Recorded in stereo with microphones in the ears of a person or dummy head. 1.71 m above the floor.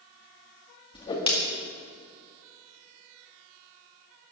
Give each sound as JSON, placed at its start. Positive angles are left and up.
{"t": 0.9, "sound": "a whoosh", "side_deg": 25, "distance_m": 2.0}